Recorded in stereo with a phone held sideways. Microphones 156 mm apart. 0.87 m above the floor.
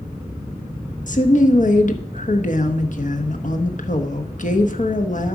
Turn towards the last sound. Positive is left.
turn(degrees=55)  # may be behind; listen again after turning